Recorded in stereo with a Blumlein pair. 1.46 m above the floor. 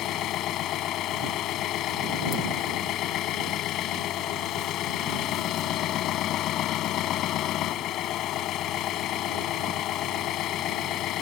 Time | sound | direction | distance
0.0 | an engine running | 35° left | ?